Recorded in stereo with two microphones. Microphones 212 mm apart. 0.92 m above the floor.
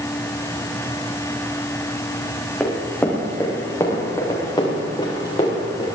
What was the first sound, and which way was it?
Running footsteps, 5° left (ahead or behind).